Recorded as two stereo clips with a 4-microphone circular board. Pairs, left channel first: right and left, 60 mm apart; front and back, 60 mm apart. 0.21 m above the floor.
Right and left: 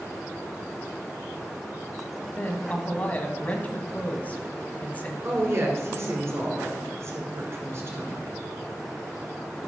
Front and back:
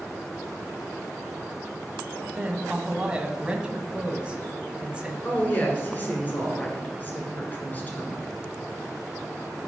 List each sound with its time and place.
2.4 s a woman speaking: 125° right, 1.3 m
5.2 s a woman speaking: 55° left, 2.5 m